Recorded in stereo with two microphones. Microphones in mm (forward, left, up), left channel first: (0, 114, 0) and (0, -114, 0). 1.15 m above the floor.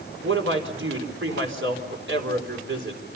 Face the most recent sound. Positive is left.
turn(degrees=-60)  # may be behind; listen again after turning